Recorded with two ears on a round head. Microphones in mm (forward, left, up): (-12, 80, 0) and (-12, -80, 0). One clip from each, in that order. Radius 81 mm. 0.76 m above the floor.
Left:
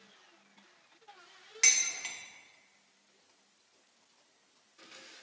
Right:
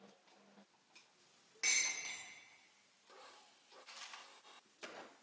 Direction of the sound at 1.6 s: 70° left (ahead or behind).